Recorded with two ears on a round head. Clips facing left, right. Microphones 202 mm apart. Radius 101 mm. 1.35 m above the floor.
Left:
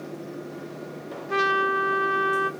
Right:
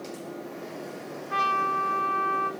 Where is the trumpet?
50° left (ahead or behind), 0.8 m.